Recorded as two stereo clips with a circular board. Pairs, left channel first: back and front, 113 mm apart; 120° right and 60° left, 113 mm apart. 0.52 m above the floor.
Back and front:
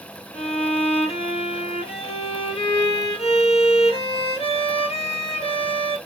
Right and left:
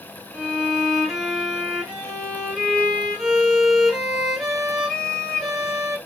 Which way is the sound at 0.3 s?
150° left.